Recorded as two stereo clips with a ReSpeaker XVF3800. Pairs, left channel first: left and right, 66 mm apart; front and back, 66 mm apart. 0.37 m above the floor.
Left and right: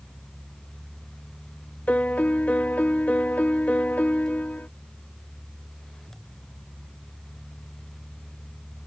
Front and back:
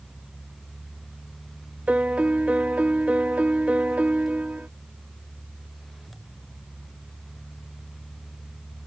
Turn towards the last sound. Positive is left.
turn(degrees=130)